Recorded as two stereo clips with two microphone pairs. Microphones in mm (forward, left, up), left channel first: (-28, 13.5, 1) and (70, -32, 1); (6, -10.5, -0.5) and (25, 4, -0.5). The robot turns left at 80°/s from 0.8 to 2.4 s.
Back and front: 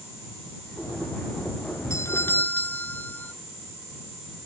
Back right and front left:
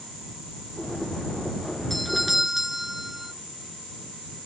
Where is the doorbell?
140° left; by 3.3 s 100° left.